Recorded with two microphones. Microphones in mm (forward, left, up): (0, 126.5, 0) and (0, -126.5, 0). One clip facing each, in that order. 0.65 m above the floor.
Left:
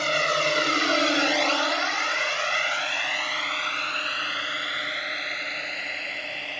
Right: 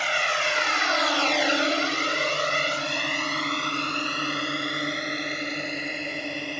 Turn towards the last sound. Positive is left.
turn(degrees=-50)  # may be behind; listen again after turning